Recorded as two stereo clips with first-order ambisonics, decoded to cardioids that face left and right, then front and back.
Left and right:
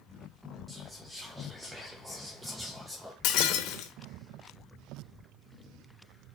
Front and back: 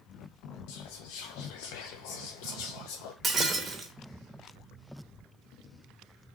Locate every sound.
0.7 s whispering: 10° right, 0.5 m
3.2 s breaking glass: 105° left, 0.8 m